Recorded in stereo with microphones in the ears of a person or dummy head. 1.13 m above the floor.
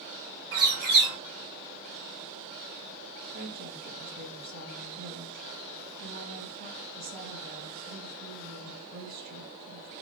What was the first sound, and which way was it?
A bird, 50° right (ahead or behind).